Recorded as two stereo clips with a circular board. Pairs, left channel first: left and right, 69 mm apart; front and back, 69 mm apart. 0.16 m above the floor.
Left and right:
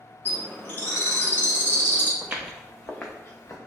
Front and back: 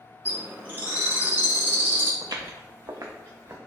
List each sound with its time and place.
0.2 s a bird: 135° left, 0.9 m
2.2 s footsteps: 155° right, 0.6 m; by 3.6 s 130° left, 0.8 m